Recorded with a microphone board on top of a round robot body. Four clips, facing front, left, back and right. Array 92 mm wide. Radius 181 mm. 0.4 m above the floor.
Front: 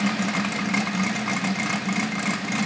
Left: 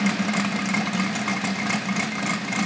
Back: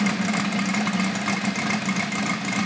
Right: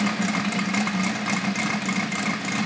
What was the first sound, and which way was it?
Only background noise.